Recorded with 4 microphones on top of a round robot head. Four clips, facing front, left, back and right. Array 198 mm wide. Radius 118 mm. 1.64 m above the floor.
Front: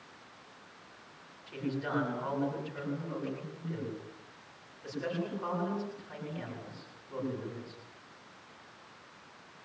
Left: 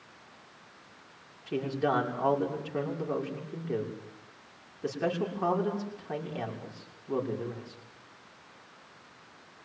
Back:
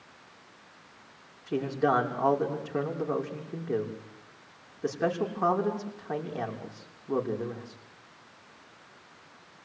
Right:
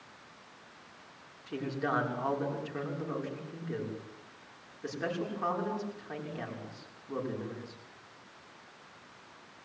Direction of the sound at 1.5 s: 155° left.